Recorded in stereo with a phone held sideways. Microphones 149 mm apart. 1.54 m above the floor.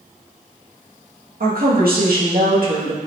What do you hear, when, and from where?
1.4 s a woman speaking: 80° right, 2 m